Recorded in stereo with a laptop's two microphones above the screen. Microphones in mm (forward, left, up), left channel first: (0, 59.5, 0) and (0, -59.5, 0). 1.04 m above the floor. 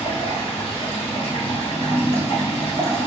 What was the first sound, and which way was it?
Running water, 55° left (ahead or behind).